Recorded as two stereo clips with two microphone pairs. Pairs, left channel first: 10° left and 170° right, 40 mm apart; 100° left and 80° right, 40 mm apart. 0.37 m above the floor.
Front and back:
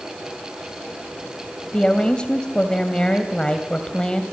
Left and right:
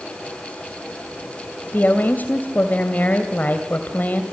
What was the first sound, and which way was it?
A woman speaking, 75° left.